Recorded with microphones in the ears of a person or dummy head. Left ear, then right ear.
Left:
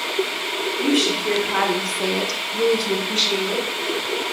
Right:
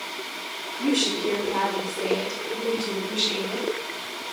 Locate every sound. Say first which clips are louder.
0.8 s a woman speaking: left 3 dB; 15° left (ahead or behind), 0.8 m; by 3.7 s 65° left (ahead or behind), 1.3 m